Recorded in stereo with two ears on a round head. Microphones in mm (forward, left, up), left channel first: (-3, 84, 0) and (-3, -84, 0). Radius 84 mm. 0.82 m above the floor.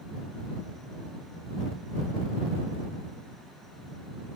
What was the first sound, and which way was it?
Only background noise.